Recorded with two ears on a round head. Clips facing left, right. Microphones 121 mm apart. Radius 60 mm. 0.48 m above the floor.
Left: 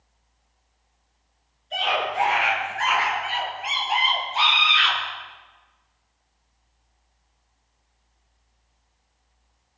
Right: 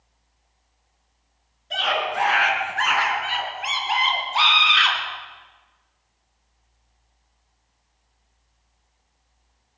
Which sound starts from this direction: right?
A scream, at 1.7 s.